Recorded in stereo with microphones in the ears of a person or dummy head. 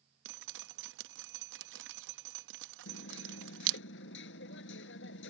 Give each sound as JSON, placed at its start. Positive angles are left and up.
{"t": 0.2, "sound": "dripping", "side_deg": -75}
{"t": 2.9, "sound": "hammering", "side_deg": 75}